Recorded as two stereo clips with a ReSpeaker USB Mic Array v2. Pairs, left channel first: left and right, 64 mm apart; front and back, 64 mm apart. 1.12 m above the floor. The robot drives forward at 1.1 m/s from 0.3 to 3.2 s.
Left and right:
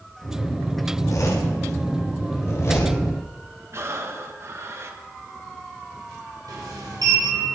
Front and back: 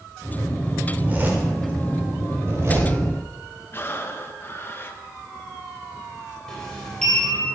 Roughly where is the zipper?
Behind left.